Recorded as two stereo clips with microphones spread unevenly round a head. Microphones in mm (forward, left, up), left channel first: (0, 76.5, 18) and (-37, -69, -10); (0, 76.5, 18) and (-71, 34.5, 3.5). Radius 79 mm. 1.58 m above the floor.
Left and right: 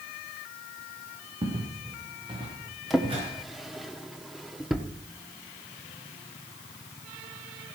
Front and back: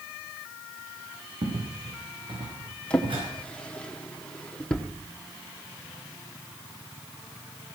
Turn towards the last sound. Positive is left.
turn(degrees=10)